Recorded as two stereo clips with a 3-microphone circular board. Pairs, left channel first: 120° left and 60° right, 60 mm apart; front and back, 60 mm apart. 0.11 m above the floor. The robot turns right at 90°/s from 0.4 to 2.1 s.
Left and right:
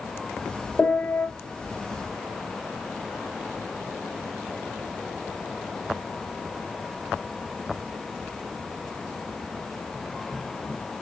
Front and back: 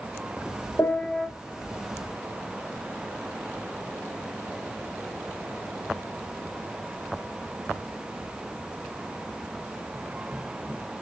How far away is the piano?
About 5.5 m.